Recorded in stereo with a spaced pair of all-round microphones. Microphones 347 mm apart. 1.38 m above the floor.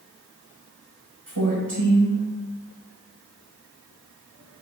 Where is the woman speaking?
65° right (ahead or behind), 1.3 m.